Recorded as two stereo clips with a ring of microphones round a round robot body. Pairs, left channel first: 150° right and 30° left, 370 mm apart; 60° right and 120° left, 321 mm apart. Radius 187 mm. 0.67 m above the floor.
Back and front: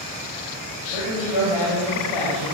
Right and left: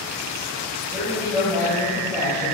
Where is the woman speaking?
155° right, 3.5 m.